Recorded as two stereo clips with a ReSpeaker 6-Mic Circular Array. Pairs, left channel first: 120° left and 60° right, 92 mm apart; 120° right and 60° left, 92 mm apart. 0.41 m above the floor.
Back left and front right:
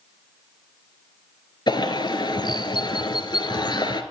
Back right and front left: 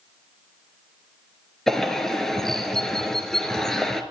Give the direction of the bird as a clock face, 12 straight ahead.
7 o'clock.